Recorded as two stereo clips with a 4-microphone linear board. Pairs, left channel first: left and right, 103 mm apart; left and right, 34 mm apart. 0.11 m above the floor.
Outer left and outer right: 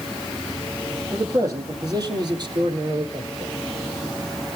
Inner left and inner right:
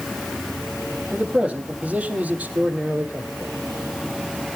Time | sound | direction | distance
1.1 | a man speaking | 30° right (ahead or behind) | 3.5 m